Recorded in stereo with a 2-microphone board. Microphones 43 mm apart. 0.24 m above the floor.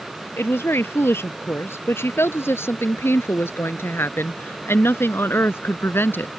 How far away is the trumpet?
No trumpet in this recording.